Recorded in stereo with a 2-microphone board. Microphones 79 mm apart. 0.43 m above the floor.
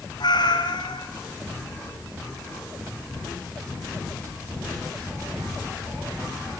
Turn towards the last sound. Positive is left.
turn(degrees=70)  # may be behind; listen again after turning